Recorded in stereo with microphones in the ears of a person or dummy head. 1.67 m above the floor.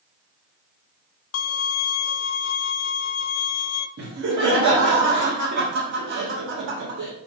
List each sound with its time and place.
1.3 s a violin: 85° left, 0.8 m
4.0 s laughter: 65° right (ahead or behind), 2 m